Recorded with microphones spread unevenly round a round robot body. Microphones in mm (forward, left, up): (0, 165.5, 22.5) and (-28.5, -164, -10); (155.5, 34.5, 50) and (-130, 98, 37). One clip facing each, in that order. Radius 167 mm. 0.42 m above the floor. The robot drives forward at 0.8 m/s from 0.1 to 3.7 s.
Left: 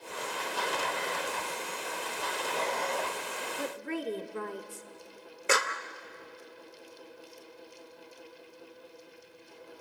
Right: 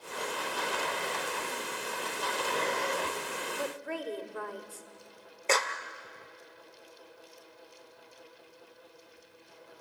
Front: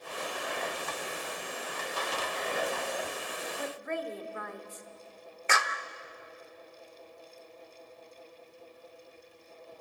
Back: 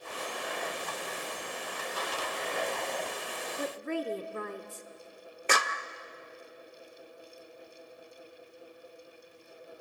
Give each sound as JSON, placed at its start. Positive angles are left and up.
{"t": 3.6, "sound": "a woman speaking", "azimuth_deg": 135, "distance_m": 1.1}
{"t": 5.5, "sound": "a clap", "azimuth_deg": 160, "distance_m": 0.8}